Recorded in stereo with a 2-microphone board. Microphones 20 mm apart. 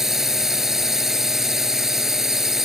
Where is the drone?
25° right (ahead or behind).